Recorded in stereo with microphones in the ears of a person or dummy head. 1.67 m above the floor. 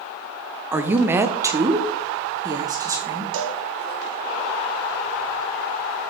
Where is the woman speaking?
10° right (ahead or behind), 0.6 m; by 3.2 s 20° right (ahead or behind), 2 m.